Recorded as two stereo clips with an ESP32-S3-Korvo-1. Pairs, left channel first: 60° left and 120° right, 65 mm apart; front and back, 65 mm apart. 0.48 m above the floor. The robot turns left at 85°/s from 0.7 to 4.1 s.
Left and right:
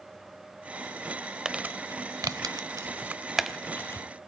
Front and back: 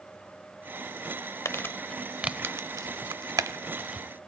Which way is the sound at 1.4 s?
40° right.